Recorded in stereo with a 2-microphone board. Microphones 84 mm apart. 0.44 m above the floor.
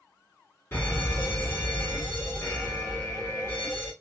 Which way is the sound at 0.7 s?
25° left (ahead or behind).